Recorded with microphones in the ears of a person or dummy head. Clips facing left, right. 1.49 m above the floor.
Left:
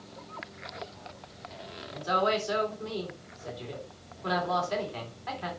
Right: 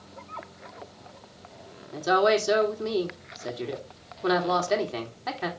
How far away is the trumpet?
No trumpet in this recording.